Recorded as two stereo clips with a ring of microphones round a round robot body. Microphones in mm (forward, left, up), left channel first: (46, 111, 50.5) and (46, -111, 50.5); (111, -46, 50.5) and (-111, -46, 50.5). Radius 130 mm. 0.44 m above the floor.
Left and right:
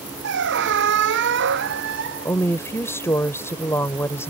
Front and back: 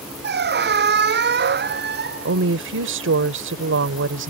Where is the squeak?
135° right.